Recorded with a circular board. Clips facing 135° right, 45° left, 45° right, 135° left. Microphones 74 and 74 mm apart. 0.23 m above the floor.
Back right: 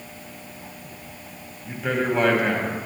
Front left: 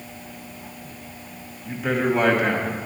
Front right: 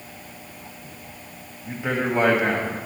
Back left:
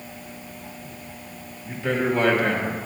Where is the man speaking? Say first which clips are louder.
Front left 2 dB, back left 1 dB; 35° right, 1.0 m.